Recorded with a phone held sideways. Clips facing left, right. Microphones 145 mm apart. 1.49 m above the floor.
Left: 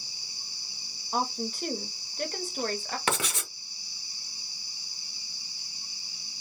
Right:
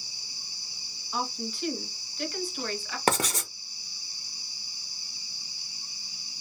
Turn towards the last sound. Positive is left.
turn(degrees=-40)  # may be behind; listen again after turning